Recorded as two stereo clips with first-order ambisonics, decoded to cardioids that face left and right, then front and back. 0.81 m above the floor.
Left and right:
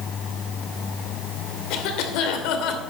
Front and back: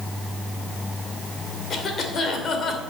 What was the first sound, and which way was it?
A cough, 65° left.